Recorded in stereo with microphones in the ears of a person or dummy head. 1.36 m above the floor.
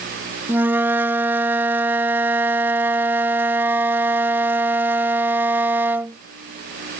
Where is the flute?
10° right (ahead or behind).